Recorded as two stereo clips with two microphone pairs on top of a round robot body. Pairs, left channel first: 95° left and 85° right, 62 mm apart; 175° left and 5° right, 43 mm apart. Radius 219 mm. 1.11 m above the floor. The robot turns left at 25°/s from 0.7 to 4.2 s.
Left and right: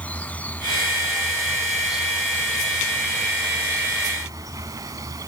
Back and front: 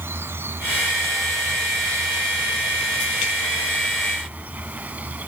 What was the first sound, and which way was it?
An insect, 25° left.